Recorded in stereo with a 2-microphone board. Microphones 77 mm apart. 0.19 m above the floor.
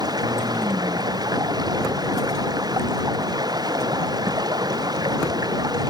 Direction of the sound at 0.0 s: 60° right (ahead or behind).